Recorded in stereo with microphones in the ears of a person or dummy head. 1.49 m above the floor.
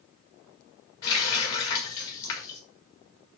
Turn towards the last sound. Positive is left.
turn(degrees=25)  # may be behind; listen again after turning